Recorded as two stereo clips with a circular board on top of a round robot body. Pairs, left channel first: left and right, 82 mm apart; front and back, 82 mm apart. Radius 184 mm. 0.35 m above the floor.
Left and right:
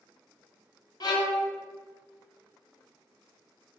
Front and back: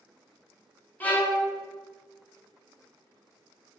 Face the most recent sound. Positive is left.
turn(degrees=65)